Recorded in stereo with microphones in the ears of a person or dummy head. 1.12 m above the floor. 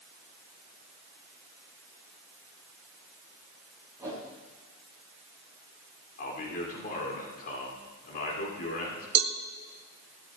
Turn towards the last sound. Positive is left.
turn(degrees=-75)  # may be behind; listen again after turning